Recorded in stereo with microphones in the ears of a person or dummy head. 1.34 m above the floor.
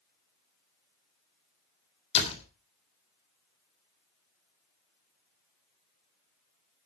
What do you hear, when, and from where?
2.1 s a door slam: 40° left (ahead or behind), 3 m